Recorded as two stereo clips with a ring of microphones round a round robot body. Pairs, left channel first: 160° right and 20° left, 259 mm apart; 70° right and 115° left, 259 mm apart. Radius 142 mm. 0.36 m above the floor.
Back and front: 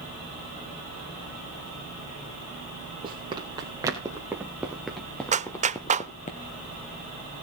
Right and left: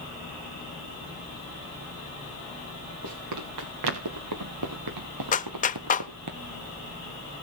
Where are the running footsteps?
95° left, 5 m; by 6.3 s 140° left, 2.5 m.